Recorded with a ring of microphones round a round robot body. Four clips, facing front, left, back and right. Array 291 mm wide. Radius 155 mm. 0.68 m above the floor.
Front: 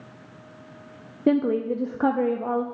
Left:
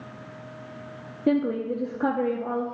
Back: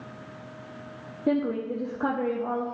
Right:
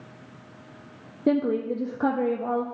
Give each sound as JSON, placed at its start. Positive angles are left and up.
{"t": 1.3, "sound": "a woman speaking", "azimuth_deg": -15, "distance_m": 0.7}